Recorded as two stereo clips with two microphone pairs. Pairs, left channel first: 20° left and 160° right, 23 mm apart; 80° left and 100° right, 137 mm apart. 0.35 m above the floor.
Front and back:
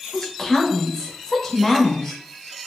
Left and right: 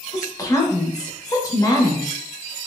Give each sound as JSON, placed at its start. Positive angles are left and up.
{"t": 0.1, "sound": "a woman speaking", "azimuth_deg": 65, "distance_m": 0.9}